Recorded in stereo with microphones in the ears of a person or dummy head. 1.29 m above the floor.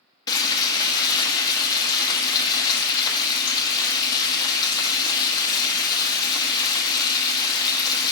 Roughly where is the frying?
Left.